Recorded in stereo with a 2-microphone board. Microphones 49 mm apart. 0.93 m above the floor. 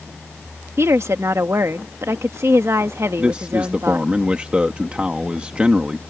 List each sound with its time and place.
0.8 s a woman speaking: 65° right (ahead or behind)
3.2 s a man speaking: 25° right (ahead or behind)